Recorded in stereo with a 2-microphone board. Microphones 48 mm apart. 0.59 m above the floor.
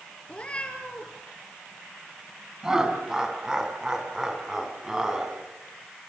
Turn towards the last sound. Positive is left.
turn(degrees=-15)  # may be behind; listen again after turning